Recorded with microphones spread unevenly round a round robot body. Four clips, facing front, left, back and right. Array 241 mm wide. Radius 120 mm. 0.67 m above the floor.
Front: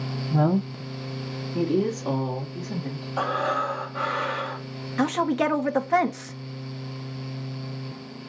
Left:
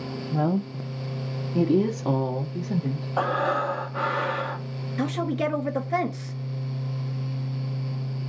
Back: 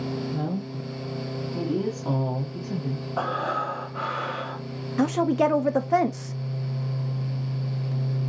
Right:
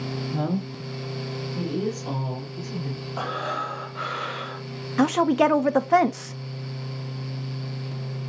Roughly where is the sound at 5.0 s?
Behind right.